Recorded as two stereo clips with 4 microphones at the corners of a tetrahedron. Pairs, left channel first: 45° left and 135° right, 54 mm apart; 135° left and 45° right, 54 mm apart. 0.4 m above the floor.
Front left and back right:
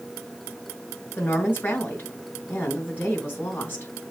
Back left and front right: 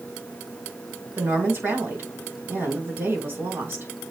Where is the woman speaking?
5° right, 4.5 m.